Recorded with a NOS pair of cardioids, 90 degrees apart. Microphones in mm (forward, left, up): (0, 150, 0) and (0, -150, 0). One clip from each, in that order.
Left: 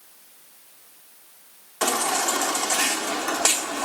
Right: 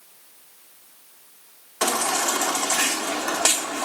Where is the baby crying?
15° right, 1.7 m.